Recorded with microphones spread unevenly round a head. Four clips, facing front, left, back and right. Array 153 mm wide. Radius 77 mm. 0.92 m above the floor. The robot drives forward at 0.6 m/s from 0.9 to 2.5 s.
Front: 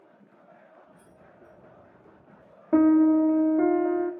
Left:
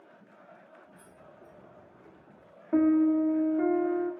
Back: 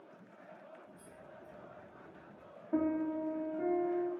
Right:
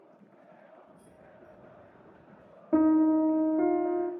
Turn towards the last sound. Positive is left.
turn(degrees=-5)